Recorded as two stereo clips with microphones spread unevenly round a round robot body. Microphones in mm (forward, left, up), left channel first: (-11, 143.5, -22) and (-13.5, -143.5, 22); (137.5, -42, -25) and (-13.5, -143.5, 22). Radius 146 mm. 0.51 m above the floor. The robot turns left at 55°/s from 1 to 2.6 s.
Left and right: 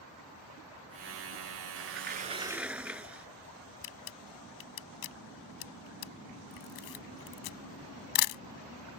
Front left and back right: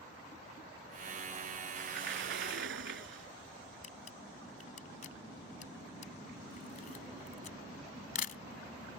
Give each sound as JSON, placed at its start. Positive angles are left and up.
{"t": 1.8, "sound": "a sliding door", "azimuth_deg": -125}
{"t": 3.8, "sound": "a camera shutter", "azimuth_deg": 100}